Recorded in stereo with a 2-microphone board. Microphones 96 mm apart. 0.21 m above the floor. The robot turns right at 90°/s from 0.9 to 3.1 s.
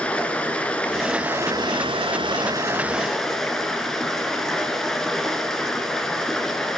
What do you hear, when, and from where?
0.0 s running water: 165° left, 1.7 m; by 6.8 s 5° left, 1.7 m